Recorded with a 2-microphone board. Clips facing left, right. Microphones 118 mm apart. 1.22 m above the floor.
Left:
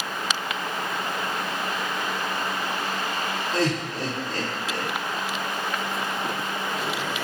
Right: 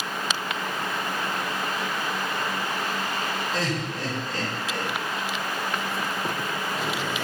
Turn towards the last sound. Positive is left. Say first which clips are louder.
# left 3 dB
turn(degrees=75)  # may be behind; listen again after turning